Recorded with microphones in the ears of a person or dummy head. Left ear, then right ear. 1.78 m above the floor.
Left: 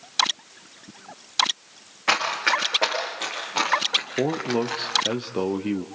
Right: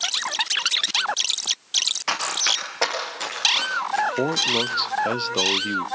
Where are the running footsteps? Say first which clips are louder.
Left 1 dB; 35° right (ahead or behind), 7.5 m; by 5.2 s 45° right (ahead or behind), 6 m.